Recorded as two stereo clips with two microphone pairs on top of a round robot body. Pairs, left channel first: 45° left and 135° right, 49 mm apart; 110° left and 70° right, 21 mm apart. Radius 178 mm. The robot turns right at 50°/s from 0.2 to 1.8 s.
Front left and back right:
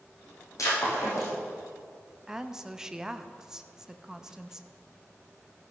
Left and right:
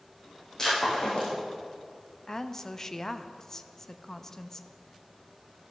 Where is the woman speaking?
145° left, 0.8 m.